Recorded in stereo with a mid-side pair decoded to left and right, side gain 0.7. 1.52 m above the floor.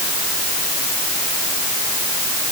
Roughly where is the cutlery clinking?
I don't hear cutlery clinking.